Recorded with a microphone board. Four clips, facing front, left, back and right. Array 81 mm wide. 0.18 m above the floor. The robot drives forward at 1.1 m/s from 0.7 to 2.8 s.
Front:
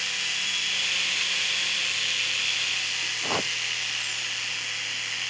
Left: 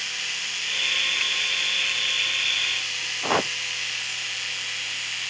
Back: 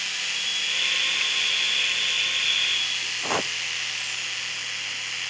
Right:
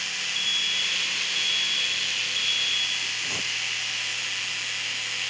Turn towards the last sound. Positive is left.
turn(degrees=100)